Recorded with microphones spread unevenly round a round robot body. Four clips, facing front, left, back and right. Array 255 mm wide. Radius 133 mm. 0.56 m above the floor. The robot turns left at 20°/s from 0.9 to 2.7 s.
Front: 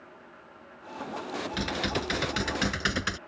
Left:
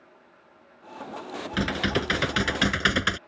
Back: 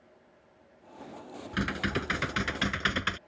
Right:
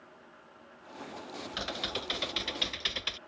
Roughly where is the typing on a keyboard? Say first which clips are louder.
Left 13 dB, back 1 dB; left.